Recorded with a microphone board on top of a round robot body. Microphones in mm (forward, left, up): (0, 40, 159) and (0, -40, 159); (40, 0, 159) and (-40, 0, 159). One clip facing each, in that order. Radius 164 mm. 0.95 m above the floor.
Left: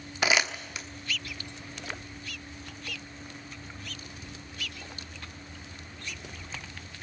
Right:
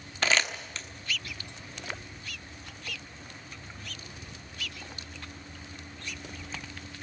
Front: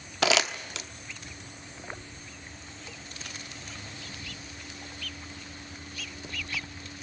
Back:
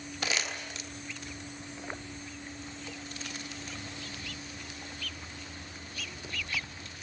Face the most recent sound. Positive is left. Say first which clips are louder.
# left 1 dB, front 9 dB
turn(degrees=10)